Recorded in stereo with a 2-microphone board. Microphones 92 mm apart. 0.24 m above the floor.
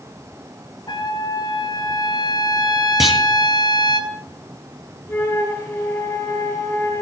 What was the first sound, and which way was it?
A trumpet, 50° left (ahead or behind).